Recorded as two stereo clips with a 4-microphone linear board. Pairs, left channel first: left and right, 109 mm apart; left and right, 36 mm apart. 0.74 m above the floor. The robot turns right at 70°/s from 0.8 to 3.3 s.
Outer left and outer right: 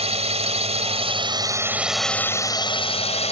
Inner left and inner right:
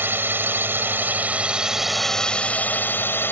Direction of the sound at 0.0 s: 80° right.